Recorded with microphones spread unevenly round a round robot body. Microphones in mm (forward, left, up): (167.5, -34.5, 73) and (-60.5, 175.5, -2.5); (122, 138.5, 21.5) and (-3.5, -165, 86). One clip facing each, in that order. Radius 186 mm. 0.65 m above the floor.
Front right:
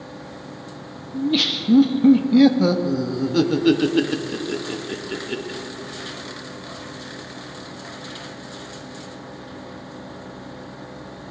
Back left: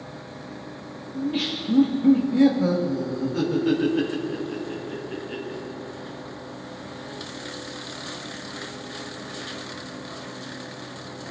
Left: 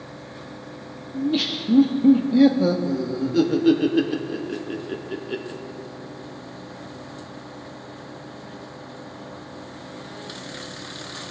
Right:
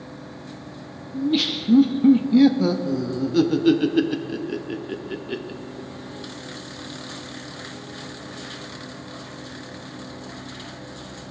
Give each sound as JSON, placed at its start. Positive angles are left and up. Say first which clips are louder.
{"t": 1.1, "sound": "laughter", "louder": "front right 5 dB, right 1 dB", "azimuth_deg": -40, "distance_m": 0.8}